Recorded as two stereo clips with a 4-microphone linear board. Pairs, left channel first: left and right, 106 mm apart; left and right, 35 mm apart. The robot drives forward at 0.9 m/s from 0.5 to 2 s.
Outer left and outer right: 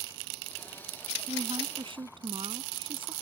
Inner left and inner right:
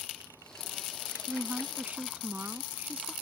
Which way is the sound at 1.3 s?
60° right (ahead or behind).